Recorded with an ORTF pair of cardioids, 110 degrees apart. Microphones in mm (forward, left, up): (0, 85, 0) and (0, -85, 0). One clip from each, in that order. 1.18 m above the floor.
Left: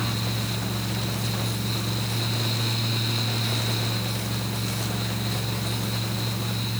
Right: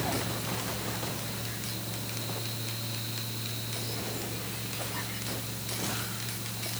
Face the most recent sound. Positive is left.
turn(degrees=65)